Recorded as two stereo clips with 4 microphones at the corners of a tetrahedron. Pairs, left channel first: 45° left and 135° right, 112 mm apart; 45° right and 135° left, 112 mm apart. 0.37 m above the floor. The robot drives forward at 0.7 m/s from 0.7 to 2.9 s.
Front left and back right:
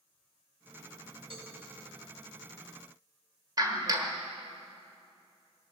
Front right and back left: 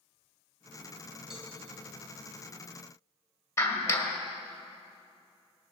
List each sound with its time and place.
1.3 s a cowbell: 140° right, 2.5 m
3.6 s a clap: 95° right, 1.3 m